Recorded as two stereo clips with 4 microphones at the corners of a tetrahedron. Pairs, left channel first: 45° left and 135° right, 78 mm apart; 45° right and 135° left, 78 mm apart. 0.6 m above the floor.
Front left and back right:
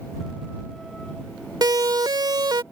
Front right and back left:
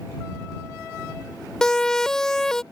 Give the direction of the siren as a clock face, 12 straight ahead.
4 o'clock.